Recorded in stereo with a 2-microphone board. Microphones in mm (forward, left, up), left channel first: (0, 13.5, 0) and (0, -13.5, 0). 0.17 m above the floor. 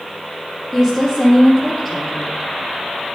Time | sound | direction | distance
0.7 | a woman speaking | 20° left (ahead or behind) | 4 m